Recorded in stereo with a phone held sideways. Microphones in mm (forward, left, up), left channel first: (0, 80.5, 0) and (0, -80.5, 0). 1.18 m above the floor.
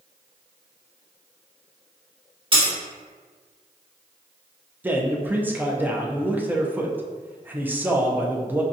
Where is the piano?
I don't hear a piano.